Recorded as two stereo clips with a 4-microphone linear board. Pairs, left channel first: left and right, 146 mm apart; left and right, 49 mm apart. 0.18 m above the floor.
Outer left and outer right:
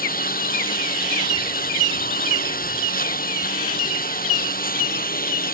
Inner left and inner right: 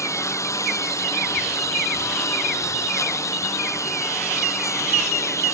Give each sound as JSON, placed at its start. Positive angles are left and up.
{"t": 0.0, "sound": "a lawn mower", "side_deg": 85}